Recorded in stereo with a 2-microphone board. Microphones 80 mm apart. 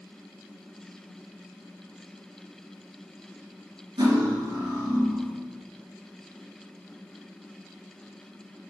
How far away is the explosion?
I don't hear an explosion.